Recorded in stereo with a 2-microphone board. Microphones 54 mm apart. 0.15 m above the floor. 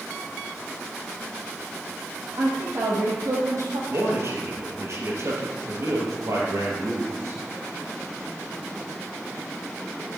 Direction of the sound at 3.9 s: 55° right (ahead or behind).